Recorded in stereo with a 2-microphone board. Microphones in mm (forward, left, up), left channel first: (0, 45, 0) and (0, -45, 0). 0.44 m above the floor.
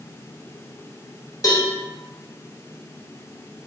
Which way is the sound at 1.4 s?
45° left (ahead or behind).